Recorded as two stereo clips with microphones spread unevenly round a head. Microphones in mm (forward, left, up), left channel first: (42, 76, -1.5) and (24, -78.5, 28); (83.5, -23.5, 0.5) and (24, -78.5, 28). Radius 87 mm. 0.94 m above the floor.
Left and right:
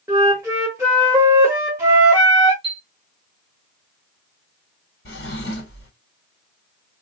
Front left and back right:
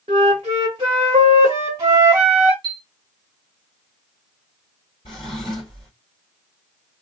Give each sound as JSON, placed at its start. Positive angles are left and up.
{"t": 0.1, "sound": "a flute", "azimuth_deg": -170, "distance_m": 1.0}
{"t": 2.6, "sound": "a chime", "azimuth_deg": -155, "distance_m": 1.2}
{"t": 5.0, "sound": "a drawer", "azimuth_deg": 90, "distance_m": 1.9}